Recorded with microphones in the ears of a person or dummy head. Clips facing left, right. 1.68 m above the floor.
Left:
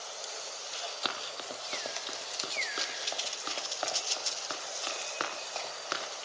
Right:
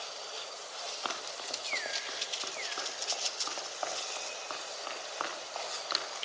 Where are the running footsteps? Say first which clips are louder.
Even; 20° left (ahead or behind), 3.5 m; by 6.3 s 25° left (ahead or behind), 6 m.